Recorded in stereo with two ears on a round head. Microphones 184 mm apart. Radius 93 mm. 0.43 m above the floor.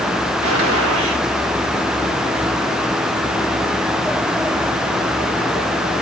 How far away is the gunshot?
About 6 m.